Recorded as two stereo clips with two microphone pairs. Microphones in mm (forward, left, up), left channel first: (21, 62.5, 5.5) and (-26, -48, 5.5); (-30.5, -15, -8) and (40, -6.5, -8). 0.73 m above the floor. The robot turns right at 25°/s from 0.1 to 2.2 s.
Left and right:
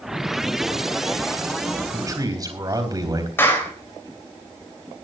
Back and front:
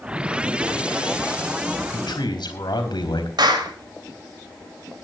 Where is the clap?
5° right, 3.5 m.